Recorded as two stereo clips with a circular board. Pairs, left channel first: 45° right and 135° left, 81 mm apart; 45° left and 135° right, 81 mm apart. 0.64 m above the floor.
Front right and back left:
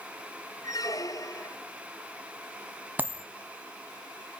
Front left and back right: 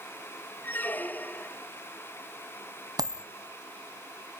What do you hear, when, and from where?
0.6 s a squeak: 15° right, 1.0 m
3.0 s a dropped coin: 160° right, 1.1 m